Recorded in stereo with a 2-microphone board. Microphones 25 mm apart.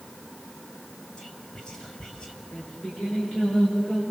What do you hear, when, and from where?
1.2 s whispering: 30° left (ahead or behind), 4.5 m
2.5 s singing: 45° left (ahead or behind), 9.5 m